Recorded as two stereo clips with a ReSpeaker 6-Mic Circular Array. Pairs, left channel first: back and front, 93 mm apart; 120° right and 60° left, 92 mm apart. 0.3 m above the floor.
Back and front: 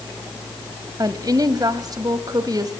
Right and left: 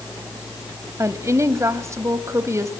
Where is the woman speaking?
15° left, 1.5 m.